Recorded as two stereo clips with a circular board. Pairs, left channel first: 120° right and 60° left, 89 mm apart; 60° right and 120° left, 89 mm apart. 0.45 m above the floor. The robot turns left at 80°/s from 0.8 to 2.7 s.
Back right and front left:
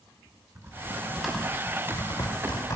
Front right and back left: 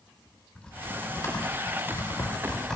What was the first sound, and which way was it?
Typing on a keyboard, 10° left.